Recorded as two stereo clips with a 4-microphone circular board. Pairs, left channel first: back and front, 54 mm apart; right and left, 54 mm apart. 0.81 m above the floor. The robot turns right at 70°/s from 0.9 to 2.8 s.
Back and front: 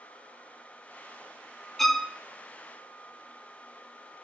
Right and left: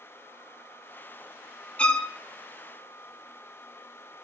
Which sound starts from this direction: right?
A violin, at 1.8 s.